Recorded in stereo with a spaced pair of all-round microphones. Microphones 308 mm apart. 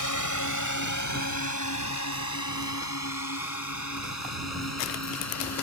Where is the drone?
70° left (ahead or behind); by 5.6 s 55° left (ahead or behind).